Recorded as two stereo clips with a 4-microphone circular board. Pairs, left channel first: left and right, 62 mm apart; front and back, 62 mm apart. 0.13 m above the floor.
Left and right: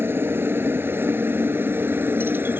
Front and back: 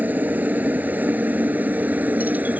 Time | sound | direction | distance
0.0 | a helicopter | 125° right | ?